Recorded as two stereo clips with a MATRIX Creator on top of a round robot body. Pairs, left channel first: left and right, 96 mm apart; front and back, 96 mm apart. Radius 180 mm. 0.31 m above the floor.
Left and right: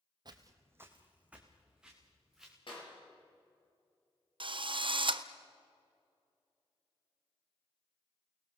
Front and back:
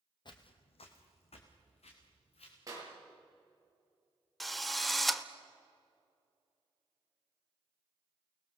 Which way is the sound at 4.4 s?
90° right.